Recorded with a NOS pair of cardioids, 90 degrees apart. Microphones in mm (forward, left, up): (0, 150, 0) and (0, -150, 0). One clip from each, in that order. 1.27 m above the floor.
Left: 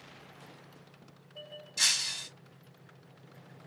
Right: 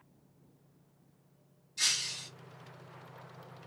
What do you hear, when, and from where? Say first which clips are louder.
1.8 s breaking glass: left 3 dB; 55° left, 1.3 m